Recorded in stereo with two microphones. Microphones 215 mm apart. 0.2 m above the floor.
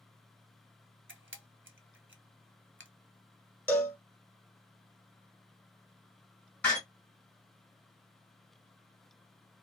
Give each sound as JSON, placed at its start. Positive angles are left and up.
{"t": 1.1, "sound": "a camera shutter", "side_deg": -75, "distance_m": 0.6}
{"t": 3.7, "sound": "a cowbell", "side_deg": 10, "distance_m": 0.8}
{"t": 6.6, "sound": "a door slam", "side_deg": 5, "distance_m": 1.4}